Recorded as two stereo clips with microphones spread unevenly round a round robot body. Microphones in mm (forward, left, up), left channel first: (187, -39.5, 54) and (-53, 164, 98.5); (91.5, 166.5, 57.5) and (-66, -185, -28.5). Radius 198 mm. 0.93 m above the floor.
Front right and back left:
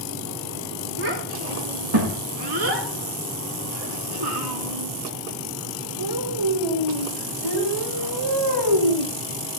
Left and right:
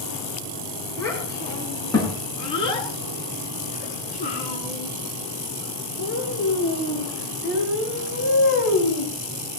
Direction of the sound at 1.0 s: 150° left.